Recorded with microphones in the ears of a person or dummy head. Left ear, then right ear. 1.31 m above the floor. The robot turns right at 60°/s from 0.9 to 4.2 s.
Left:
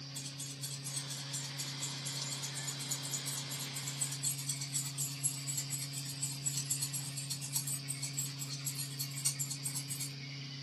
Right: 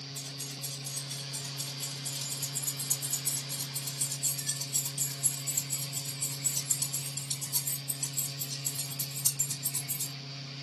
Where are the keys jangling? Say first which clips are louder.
Right 3 dB; 50° left (ahead or behind), 2.5 m; by 10.1 s 30° right (ahead or behind), 2.5 m.